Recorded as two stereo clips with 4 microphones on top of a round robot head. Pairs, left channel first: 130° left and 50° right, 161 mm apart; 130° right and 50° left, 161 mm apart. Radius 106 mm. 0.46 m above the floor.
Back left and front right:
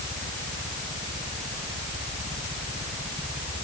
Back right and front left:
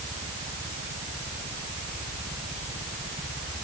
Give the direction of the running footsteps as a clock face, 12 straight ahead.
I don't hear running footsteps.